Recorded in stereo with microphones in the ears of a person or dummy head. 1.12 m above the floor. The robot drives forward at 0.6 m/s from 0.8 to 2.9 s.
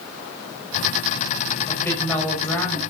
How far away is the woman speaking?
About 6 m.